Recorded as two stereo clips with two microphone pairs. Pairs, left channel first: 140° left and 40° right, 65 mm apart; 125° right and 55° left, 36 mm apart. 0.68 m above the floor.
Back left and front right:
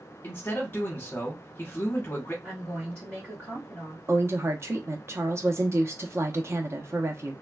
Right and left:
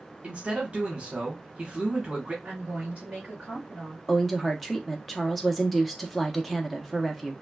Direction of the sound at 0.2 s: 100° left.